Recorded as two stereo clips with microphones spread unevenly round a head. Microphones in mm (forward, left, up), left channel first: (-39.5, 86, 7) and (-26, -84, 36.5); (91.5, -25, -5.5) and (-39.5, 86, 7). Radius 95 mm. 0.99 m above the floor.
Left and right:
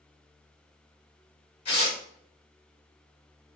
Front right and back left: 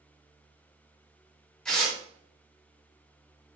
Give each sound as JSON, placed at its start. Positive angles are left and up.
{"t": 1.6, "sound": "tearing paper", "azimuth_deg": 45, "distance_m": 1.4}